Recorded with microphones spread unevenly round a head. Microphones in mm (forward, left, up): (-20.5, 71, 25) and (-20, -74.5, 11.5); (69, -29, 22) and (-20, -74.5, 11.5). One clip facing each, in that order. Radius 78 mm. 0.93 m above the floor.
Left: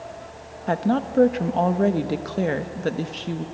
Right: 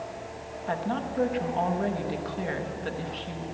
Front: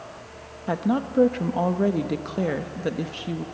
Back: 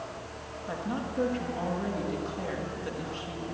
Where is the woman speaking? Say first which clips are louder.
Left 8 dB, front 10 dB; 55° left, 1.3 m.